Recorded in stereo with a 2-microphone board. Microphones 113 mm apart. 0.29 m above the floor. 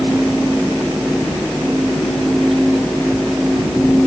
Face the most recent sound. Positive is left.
No sound to turn to.